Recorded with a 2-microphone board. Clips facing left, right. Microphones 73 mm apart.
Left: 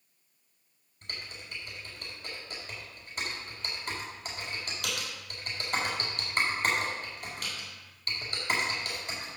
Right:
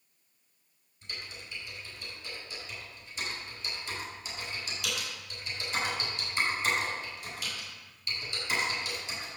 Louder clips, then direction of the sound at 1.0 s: Left 1 dB; 55° left (ahead or behind).